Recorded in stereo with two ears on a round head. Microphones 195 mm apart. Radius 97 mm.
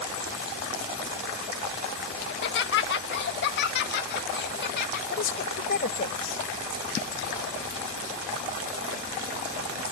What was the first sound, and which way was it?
Laughter, 55° left (ahead or behind).